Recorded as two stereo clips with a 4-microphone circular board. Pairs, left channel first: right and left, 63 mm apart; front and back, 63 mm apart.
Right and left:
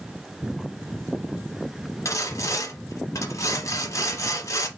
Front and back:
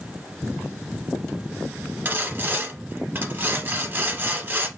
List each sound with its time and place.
2.0 s sawing: 125° right, 0.8 m